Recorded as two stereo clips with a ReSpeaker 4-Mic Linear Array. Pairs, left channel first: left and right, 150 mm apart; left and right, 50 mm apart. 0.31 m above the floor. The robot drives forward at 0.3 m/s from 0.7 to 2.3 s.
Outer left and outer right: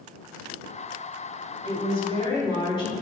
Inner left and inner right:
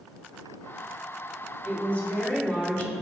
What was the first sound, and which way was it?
A woman speaking, 40° left (ahead or behind).